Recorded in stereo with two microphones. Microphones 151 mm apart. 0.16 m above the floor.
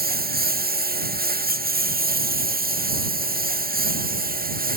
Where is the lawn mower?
85° right; by 4.8 s 75° right (ahead or behind).